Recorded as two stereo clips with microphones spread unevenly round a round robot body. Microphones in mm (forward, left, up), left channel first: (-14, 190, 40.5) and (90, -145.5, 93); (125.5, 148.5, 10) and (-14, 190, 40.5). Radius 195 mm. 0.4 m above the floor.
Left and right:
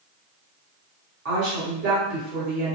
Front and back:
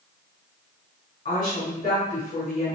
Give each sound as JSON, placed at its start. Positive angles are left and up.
{"t": 1.2, "sound": "a woman speaking", "azimuth_deg": -35, "distance_m": 1.8}